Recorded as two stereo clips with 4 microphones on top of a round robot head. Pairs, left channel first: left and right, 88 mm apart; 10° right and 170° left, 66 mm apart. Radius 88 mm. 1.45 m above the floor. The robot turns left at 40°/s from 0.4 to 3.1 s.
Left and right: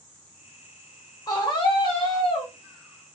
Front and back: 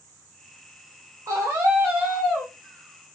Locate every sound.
1.3 s a scream: 130° left, 0.8 m; by 2.5 s 80° left, 0.8 m